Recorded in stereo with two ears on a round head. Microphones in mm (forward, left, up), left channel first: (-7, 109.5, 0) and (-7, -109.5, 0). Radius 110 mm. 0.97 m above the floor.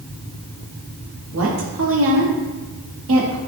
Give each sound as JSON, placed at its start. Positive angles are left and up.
{"t": 1.3, "sound": "a woman speaking", "side_deg": -60, "distance_m": 2.5}